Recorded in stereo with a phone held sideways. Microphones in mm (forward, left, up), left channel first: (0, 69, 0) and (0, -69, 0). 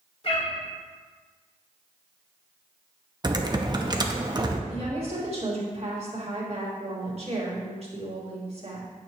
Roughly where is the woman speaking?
Right.